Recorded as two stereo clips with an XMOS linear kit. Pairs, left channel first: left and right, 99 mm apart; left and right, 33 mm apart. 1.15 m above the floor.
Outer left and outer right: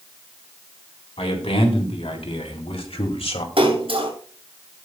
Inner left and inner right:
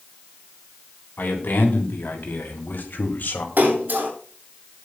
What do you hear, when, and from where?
1.2 s a man speaking: 80° left, 3.5 m; by 3.5 s 70° left (ahead or behind), 2 m
3.6 s a splash: 60° right (ahead or behind), 7.5 m